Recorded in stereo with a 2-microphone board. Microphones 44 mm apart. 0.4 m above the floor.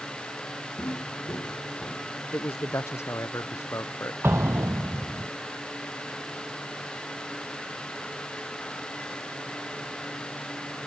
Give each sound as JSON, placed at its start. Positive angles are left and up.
{"t": 0.8, "sound": "footsteps", "side_deg": 90}
{"t": 2.3, "sound": "a man speaking", "side_deg": 70}
{"t": 4.2, "sound": "an explosion", "side_deg": -60}